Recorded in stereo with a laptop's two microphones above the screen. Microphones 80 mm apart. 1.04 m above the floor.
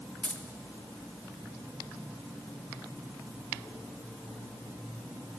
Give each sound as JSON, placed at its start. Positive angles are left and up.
{"t": 0.2, "sound": "keys jangling", "side_deg": 20, "distance_m": 0.7}